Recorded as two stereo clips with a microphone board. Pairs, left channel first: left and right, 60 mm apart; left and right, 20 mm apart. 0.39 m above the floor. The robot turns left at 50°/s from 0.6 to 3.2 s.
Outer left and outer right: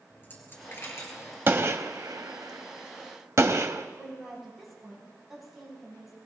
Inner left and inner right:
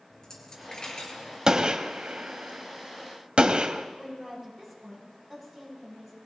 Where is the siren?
I don't hear a siren.